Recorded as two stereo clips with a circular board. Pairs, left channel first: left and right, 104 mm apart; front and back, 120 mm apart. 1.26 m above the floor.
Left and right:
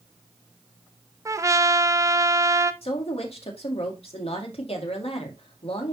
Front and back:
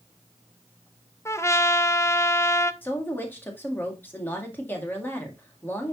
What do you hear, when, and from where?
1.2 s a trumpet: 50° right, 0.5 m
2.8 s a woman speaking: 75° left, 2.0 m